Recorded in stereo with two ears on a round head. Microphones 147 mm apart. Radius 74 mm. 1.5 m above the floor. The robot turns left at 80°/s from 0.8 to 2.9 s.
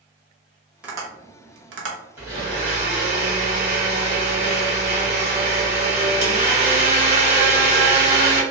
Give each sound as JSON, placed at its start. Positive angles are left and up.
{"t": 0.8, "sound": "tapping", "side_deg": -5, "distance_m": 0.7}
{"t": 2.2, "sound": "a blender", "azimuth_deg": -15, "distance_m": 1.1}